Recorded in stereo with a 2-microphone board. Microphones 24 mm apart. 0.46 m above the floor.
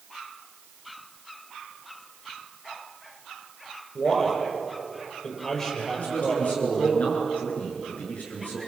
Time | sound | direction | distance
4.0 | a man speaking | 20° left (ahead or behind) | 10 m
6.0 | a man speaking | 75° left (ahead or behind) | 7.5 m